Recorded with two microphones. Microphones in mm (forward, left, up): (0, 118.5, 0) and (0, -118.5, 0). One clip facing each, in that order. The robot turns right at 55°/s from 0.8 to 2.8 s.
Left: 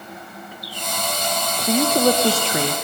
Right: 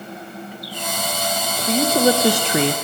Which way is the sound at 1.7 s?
170° left.